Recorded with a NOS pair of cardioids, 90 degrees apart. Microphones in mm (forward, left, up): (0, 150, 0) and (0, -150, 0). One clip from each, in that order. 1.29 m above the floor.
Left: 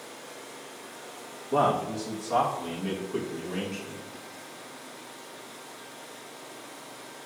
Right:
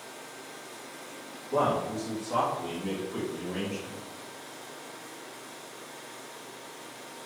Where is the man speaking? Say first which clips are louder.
Left 2 dB; 40° left, 2 m; by 4.0 s straight ahead, 2.5 m.